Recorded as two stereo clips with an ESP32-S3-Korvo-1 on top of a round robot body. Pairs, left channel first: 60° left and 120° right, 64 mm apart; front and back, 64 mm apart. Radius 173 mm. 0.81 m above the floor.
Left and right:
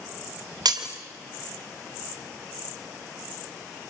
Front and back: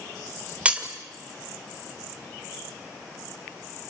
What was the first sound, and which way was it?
Breaking glass, 110° right.